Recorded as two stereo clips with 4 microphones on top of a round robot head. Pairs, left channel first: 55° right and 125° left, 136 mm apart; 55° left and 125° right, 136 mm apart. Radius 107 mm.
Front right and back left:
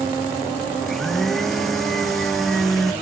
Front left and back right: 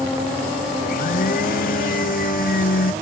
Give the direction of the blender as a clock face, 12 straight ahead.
11 o'clock.